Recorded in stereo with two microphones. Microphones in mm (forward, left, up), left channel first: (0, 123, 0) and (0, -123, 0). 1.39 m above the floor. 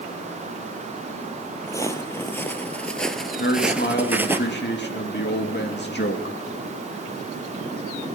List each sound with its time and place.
1.7 s footsteps: 10° left (ahead or behind), 1.8 m; by 4.4 s 10° right (ahead or behind), 1.5 m
3.4 s a man speaking: 40° left (ahead or behind), 2 m